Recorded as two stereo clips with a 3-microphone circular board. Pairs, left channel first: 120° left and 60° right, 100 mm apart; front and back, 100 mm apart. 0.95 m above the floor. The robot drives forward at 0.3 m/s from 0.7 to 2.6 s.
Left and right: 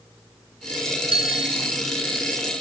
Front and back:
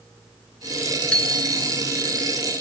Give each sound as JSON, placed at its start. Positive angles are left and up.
{"t": 1.1, "sound": "a bicycle bell", "azimuth_deg": -80}